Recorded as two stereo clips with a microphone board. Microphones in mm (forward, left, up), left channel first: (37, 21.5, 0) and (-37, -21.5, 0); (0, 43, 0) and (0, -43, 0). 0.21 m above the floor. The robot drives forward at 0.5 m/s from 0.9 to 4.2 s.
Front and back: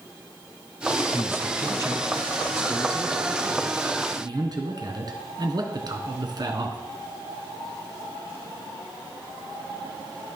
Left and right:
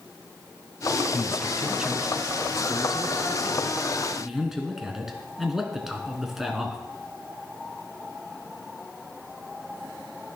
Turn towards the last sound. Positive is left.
turn(degrees=-175)